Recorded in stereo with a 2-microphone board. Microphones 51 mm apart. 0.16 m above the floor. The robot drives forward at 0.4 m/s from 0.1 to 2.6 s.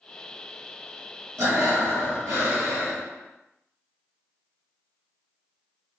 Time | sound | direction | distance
1.4 | breathing | 65° right (ahead or behind) | 1.2 m